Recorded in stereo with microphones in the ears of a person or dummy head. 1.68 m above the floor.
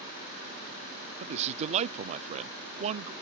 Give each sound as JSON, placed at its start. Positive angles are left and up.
{"t": 1.2, "sound": "a man speaking", "side_deg": -40}